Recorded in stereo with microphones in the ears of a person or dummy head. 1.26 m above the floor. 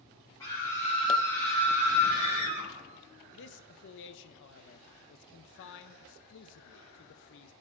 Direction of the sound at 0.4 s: 15° left (ahead or behind).